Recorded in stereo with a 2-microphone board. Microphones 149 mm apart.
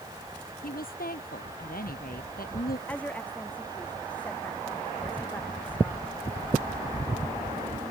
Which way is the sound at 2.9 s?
10° left (ahead or behind).